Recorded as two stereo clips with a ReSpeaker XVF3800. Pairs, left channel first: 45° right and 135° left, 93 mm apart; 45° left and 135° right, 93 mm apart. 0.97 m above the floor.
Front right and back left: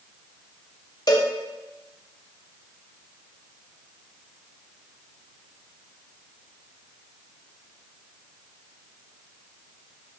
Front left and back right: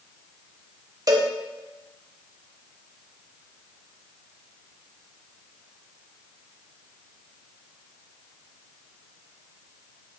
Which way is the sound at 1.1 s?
90° right.